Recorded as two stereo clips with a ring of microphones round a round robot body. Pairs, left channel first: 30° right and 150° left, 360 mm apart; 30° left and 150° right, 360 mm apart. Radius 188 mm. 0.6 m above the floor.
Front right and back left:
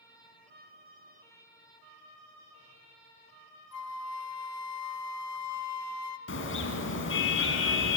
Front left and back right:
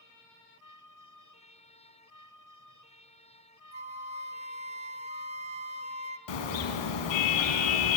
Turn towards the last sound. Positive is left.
turn(degrees=30)